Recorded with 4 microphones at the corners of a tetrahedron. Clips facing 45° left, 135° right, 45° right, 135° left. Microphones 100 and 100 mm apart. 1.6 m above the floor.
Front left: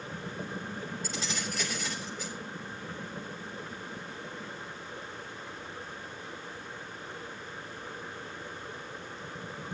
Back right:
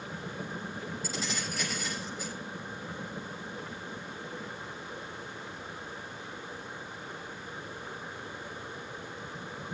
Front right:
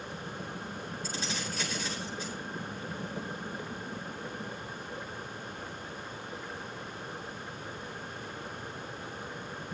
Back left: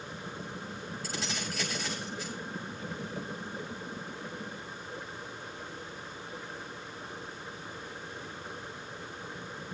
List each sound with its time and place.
1.0 s keys jangling: 135° left, 7 m